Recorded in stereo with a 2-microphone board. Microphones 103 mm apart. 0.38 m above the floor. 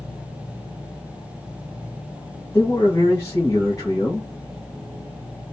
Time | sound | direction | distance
2.5 | a man speaking | 30° left (ahead or behind) | 2.5 m